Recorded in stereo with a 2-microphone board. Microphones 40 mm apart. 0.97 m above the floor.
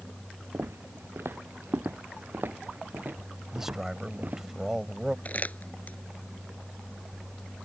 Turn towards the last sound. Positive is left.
turn(degrees=40)  # may be behind; listen again after turning